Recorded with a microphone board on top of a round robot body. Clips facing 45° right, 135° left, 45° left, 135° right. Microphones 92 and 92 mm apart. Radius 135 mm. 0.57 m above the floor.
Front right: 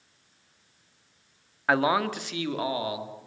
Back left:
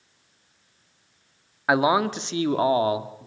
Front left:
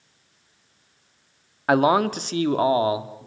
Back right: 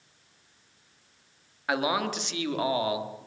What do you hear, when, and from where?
1.7 s a man speaking: 60° left, 1.5 m; by 3.3 s 100° left, 2.0 m